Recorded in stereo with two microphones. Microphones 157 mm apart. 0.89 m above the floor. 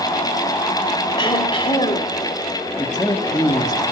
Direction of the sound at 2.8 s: 25° left (ahead or behind).